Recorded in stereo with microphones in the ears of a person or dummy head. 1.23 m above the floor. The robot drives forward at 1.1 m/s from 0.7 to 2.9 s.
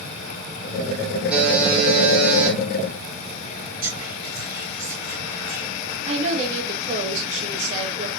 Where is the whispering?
50° right (ahead or behind), 4.5 m.